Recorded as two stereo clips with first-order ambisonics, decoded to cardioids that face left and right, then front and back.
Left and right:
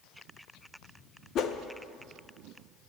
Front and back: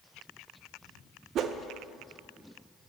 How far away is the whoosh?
About 0.7 m.